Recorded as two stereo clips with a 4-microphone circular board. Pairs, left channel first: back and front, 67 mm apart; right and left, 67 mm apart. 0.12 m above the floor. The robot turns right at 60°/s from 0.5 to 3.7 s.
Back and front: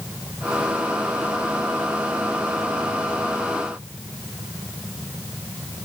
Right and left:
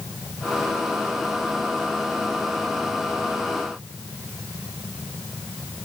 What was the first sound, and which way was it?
Only background noise.